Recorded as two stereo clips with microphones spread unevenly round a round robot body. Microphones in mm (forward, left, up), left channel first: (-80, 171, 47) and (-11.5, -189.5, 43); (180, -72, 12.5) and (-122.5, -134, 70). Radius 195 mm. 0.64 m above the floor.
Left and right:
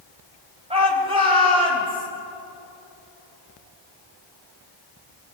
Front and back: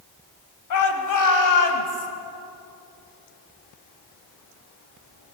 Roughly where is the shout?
Ahead.